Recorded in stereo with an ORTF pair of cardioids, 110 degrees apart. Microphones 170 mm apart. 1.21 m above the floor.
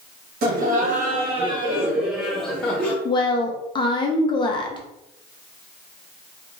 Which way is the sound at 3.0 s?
30° left.